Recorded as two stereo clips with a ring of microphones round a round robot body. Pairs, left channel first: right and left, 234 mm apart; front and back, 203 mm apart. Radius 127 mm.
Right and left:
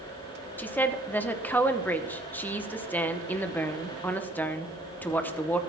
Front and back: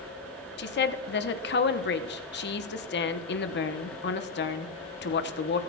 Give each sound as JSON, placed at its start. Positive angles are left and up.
{"t": 0.6, "sound": "a woman speaking", "azimuth_deg": -10, "distance_m": 0.9}